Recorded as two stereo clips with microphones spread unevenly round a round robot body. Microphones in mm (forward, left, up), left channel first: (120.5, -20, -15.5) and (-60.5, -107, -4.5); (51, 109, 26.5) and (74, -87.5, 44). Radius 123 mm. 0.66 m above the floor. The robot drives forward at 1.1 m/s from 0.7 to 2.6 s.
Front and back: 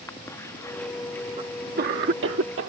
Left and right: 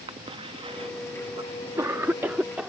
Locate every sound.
0.1 s a cough: 35° right; by 2.7 s 170° right